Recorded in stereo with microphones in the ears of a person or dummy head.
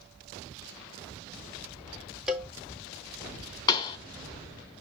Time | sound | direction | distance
2.3 | a cowbell | 5° right (ahead or behind) | 2.0 m
3.7 | a pop | 25° left (ahead or behind) | 1.7 m